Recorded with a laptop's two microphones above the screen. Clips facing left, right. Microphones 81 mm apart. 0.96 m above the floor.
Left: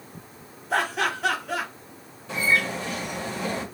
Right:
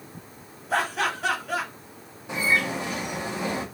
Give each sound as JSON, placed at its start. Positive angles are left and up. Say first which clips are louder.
{"t": 0.7, "sound": "laughter", "louder": "left 1 dB", "side_deg": 0, "distance_m": 1.2}
{"t": 2.3, "sound": "a bird", "louder": "even", "side_deg": -15, "distance_m": 0.9}